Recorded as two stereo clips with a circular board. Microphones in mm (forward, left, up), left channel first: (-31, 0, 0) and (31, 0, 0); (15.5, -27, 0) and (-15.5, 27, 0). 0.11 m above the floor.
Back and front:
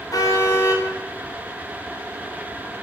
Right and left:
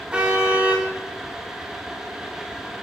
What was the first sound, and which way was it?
A car horn, 165° right.